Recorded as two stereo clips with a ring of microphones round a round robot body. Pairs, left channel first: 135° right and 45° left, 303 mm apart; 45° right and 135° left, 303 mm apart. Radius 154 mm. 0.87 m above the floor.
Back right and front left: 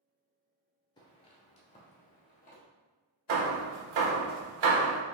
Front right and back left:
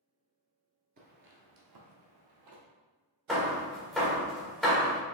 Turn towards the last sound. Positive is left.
turn(degrees=45)